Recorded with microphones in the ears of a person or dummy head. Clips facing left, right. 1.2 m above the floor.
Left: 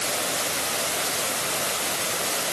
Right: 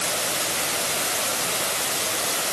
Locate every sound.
Only background noise.